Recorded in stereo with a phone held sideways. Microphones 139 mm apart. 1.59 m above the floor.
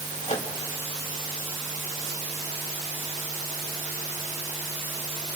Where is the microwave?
55° left (ahead or behind), 2 m.